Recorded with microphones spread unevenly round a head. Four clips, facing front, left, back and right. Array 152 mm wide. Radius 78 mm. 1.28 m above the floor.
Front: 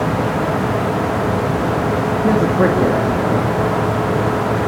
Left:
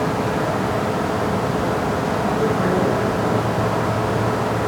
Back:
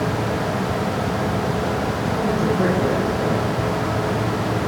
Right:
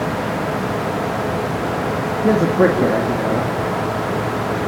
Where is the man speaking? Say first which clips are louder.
Right 8 dB, front 5 dB; 65° right, 3 m.